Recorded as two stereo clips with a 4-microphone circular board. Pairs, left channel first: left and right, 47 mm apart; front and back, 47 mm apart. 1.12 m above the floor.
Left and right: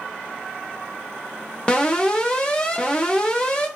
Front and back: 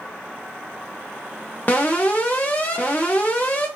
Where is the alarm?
35° left, 1.5 m.